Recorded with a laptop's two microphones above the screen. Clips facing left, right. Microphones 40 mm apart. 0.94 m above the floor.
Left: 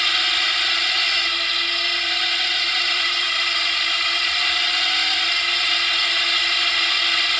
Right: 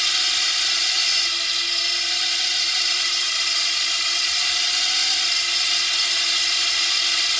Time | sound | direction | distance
0.0 | a drone | 25° left (ahead or behind) | ?